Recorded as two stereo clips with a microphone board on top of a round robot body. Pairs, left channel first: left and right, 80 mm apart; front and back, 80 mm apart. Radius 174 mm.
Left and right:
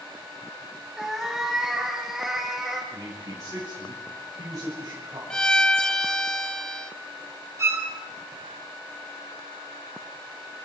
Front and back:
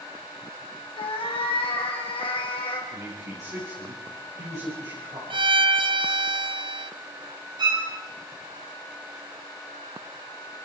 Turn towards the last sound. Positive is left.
turn(degrees=-145)